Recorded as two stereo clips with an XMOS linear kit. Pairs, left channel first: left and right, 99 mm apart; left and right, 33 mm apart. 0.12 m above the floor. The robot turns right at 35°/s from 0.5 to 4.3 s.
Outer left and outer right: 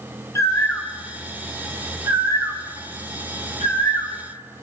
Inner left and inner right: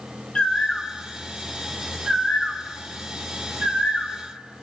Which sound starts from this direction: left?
A bird, at 0.3 s.